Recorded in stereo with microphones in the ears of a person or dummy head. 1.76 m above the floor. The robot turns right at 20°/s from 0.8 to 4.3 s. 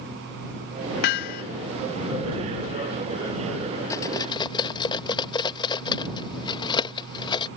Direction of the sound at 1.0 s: 55° left (ahead or behind).